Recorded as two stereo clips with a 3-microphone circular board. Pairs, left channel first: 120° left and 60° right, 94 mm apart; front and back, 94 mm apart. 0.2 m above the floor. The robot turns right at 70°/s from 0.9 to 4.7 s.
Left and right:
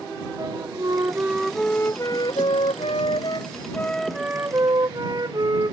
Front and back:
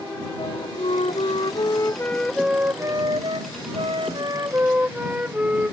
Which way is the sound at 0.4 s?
10° right.